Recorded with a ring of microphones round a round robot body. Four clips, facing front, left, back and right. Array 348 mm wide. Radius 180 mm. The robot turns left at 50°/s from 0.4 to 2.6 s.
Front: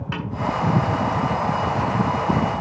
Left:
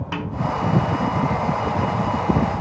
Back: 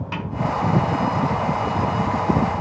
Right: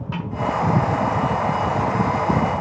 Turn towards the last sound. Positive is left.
turn(degrees=-35)